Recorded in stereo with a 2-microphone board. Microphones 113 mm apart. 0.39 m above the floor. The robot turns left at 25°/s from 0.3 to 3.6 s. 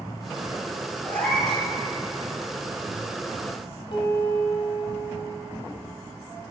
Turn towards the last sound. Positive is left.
turn(degrees=55)  # may be behind; listen again after turning